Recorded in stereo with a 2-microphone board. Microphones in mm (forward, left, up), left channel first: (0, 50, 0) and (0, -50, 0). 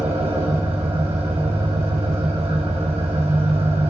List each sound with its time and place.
0.0 s an engine running: 65° right (ahead or behind), 1.9 m